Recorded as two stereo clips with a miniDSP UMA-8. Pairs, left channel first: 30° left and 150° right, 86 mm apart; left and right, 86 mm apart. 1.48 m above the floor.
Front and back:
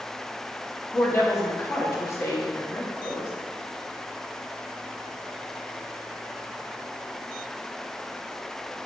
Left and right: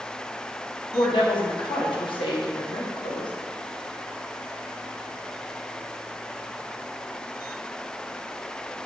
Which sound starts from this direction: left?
A woman speaking, at 0.9 s.